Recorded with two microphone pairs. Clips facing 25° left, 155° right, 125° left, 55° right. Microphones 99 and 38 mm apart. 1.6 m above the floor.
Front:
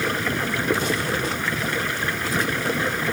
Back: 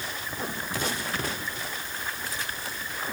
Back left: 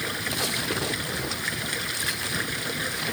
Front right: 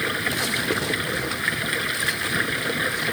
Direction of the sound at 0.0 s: 15° left.